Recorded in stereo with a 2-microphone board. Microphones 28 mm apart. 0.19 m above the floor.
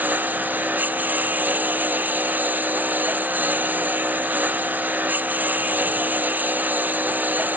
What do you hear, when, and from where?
0.0 s a lawn mower: 85° right